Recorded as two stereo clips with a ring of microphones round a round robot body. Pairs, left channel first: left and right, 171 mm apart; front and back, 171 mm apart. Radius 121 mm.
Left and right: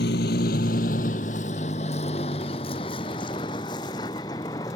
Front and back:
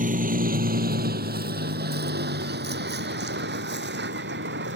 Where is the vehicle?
140° left; by 4.8 s 165° left.